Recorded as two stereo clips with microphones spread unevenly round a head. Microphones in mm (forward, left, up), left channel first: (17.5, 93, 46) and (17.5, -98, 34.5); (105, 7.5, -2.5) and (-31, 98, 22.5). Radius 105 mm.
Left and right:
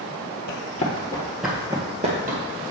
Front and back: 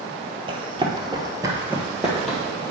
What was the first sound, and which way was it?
Running footsteps, 115° left.